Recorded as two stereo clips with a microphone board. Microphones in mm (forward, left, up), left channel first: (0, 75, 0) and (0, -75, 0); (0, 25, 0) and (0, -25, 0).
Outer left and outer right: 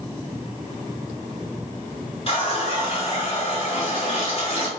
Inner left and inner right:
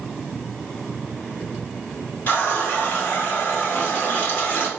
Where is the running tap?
40° left (ahead or behind), 0.9 m.